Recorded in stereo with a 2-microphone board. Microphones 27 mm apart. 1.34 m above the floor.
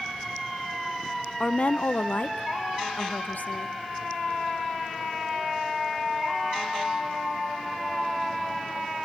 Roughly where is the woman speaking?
Left.